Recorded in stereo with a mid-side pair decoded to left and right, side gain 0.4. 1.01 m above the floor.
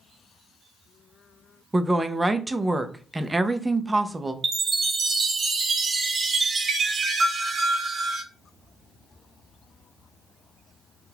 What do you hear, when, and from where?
1.7 s a woman speaking: 20° right, 0.6 m
4.4 s a chime: 45° right, 0.8 m